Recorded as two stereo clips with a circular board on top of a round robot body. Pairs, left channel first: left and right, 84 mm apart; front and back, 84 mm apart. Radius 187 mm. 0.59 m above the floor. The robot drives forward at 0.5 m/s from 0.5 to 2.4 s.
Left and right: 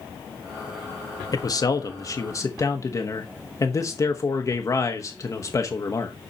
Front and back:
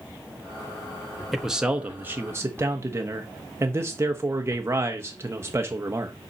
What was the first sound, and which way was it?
A man speaking, 90° left.